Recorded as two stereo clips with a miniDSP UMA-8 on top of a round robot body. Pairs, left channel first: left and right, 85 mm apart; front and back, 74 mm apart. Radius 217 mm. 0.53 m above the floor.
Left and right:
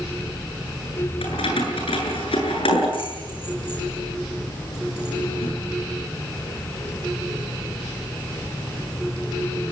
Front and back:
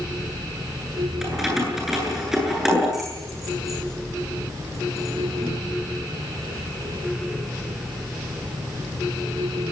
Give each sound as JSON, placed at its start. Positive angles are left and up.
{"t": 1.2, "sound": "keys jangling", "azimuth_deg": 95, "distance_m": 9.0}